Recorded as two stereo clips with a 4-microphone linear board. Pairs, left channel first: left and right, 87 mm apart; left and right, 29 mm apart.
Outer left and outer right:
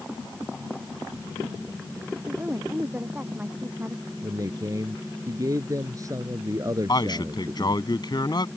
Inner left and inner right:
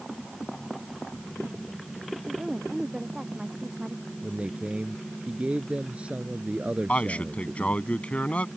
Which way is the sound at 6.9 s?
50° left (ahead or behind).